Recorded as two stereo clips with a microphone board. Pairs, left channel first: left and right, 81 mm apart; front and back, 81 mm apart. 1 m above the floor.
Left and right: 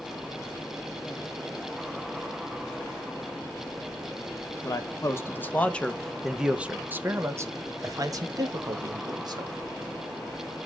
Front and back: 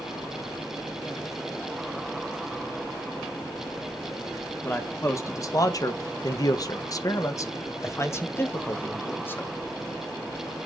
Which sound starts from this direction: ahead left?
A man speaking, at 4.6 s.